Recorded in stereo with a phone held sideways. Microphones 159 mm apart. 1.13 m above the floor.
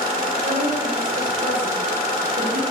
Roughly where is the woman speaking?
Right.